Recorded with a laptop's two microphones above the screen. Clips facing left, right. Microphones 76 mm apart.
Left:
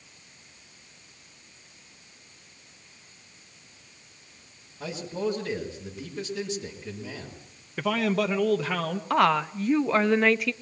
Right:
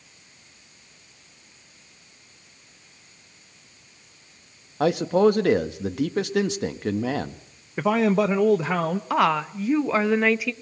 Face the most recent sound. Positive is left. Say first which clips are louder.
# even
turn(degrees=-5)  # may be behind; listen again after turning